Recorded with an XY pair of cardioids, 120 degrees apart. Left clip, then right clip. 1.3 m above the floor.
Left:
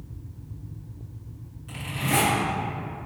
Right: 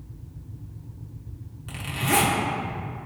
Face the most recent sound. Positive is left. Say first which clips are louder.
# right 2 dB
turn(degrees=-45)